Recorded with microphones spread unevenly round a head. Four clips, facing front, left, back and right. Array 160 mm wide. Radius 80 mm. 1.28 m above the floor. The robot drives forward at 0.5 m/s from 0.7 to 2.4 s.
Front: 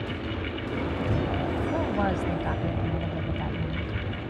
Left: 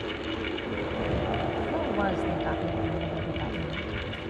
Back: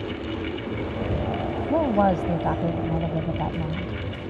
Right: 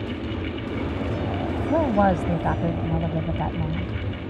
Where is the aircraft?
100° right.